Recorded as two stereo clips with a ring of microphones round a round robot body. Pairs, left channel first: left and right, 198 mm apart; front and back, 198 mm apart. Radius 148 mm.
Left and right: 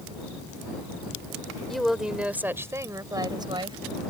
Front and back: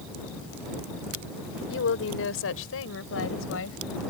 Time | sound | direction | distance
1.7 | a woman speaking | straight ahead | ?